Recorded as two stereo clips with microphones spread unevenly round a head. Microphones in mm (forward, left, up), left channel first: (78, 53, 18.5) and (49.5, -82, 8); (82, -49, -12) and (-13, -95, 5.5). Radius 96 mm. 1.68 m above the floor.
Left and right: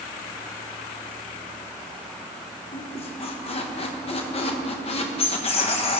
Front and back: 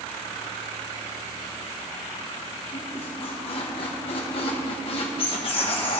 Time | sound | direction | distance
2.7 | a squeak | 60° left | 1.0 m